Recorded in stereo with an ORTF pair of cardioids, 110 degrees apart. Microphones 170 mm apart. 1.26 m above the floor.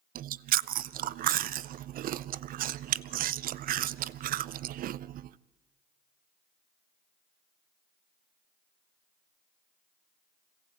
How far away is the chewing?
About 0.5 m.